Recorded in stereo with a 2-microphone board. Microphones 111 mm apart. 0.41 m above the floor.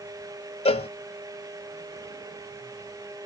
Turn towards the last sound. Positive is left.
turn(degrees=75)  # may be behind; listen again after turning